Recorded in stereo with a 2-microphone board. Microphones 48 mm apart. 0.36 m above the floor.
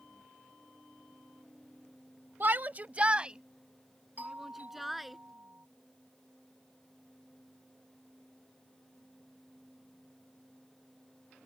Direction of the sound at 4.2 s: 40° right (ahead or behind).